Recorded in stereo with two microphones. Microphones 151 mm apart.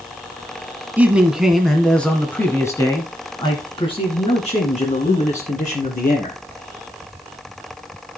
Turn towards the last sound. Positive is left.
turn(degrees=60)  # may be behind; listen again after turning